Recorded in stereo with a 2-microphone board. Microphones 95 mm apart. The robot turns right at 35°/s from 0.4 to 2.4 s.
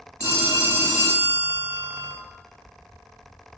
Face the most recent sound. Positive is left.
turn(degrees=-145)